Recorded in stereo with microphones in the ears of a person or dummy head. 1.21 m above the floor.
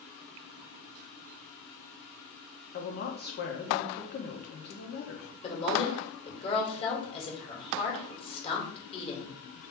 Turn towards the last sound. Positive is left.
turn(degrees=35)  # may be behind; listen again after turning